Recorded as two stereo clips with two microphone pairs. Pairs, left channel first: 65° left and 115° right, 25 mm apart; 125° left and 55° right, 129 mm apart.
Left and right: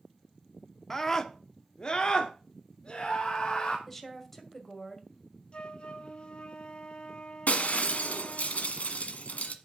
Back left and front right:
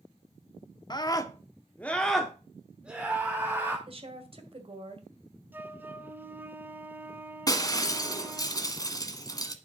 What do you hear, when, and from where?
0.9 s a scream: 120° left, 0.8 m; by 3.8 s 15° left, 1.7 m
3.9 s a woman speaking: 15° right, 2 m
5.5 s a flute: 20° left, 0.9 m
7.5 s breaking glass: 65° left, 1.3 m